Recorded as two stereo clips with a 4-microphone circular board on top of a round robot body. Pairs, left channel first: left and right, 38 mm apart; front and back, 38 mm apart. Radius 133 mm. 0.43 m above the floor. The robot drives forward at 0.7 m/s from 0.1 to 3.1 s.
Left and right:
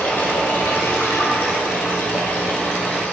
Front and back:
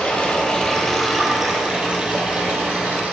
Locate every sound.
0.0 s running water: 60° left, 1.4 m; by 3.1 s 140° left, 1.8 m